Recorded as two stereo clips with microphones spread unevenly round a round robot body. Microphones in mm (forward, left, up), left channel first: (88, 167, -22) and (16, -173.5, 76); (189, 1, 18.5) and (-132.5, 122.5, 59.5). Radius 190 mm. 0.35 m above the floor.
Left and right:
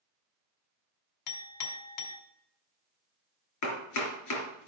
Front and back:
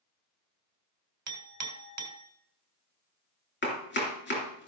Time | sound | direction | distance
1.3 | a clink | 110° left | 1.6 m
3.6 | chopping | 40° left | 3.5 m